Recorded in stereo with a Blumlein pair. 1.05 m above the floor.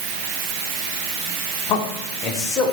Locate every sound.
1.7 s a man speaking: 35° left, 2.5 m; by 2.7 s 20° left, 4 m